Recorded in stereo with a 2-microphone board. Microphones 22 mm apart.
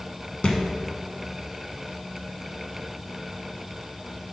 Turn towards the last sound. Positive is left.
turn(degrees=60)  # may be behind; listen again after turning